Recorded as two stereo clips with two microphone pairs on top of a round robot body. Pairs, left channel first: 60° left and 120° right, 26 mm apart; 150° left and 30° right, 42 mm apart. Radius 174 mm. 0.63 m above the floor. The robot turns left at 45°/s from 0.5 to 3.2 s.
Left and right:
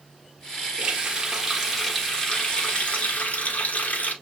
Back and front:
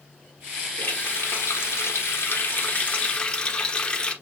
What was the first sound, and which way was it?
A running tap, 170° right.